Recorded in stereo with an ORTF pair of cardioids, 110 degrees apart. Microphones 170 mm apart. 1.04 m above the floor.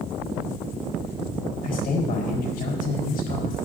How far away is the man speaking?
About 4.5 m.